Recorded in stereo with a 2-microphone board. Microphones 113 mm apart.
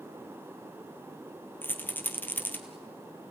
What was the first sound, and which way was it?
A rattle, 15° left (ahead or behind).